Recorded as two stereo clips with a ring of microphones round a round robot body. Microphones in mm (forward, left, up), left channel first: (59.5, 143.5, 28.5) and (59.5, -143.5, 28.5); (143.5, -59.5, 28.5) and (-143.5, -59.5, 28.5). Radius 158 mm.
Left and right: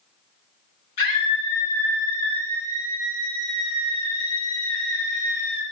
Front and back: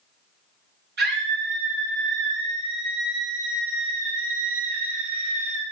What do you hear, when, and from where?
1.0 s a scream: 120° left, 4.5 m; by 5.6 s 140° left, 1.8 m